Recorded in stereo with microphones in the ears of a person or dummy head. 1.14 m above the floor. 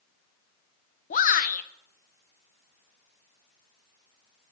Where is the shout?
40° left (ahead or behind), 0.7 m.